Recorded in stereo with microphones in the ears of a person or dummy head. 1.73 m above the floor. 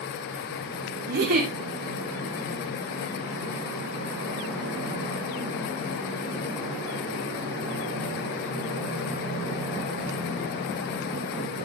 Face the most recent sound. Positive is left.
turn(degrees=-60)  # may be behind; listen again after turning